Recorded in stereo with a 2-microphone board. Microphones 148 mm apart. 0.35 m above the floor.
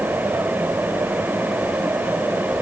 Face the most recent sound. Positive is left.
No sound to turn to.